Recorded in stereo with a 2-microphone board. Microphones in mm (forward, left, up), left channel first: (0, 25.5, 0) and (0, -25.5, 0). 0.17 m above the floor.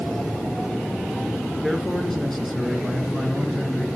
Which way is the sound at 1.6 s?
5° left (ahead or behind).